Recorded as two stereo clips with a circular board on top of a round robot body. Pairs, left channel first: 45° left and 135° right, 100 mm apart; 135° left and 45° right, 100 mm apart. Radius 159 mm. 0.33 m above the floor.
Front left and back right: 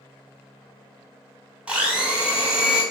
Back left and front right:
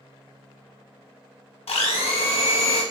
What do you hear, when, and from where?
1.7 s a blender: 145° left, 0.7 m